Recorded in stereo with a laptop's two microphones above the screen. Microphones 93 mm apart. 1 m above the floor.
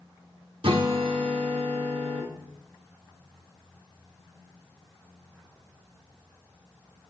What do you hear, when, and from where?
0.6 s a guitar: 70° right (ahead or behind), 1.3 m